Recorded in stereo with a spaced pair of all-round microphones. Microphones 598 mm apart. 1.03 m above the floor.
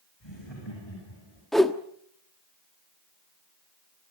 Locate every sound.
0.2 s laughter: 45° left (ahead or behind), 8.5 m; by 1.4 s 50° left (ahead or behind), 9.5 m
1.5 s a whoosh: centre (ahead or behind), 1.3 m